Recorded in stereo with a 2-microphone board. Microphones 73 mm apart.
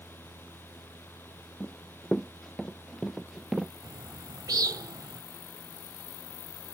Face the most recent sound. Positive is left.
turn(degrees=-60)  # may be behind; listen again after turning